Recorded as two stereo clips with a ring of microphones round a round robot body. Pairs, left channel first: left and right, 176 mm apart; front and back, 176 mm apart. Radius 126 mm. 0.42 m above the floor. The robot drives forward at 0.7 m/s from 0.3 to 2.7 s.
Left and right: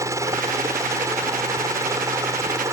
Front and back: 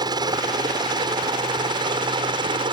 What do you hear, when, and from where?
0.0 s a helicopter: 145° right